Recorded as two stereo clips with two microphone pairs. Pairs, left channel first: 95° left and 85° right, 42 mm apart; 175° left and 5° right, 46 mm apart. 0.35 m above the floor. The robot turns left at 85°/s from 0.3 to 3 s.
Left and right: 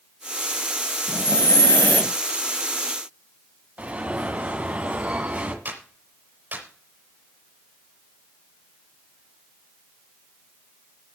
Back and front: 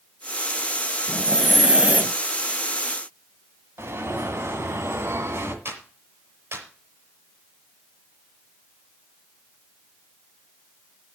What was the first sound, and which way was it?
Breathing, 125° left.